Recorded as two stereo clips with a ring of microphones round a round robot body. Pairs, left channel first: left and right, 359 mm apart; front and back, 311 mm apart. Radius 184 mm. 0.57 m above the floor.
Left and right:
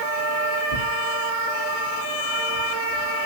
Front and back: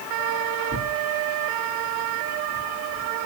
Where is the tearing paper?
125° left, 9.5 m.